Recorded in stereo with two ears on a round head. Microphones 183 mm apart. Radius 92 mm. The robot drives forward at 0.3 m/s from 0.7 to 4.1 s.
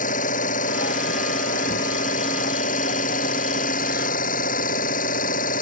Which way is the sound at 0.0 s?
40° left (ahead or behind).